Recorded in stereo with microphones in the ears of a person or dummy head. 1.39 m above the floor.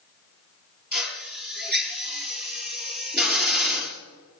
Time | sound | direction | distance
0.9 | a drill | 10° right (ahead or behind) | 4 m